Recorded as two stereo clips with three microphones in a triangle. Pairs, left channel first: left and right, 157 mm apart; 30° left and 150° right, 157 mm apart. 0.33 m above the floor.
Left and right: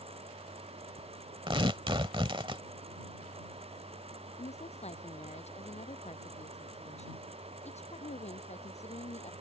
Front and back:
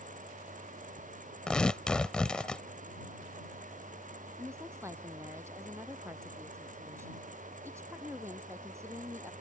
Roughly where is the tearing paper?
Ahead right.